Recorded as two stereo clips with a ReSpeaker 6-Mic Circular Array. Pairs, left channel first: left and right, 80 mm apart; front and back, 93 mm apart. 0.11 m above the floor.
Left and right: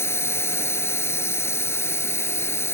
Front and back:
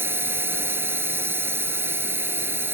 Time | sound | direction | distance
0.0 | a drone | 125° left | ?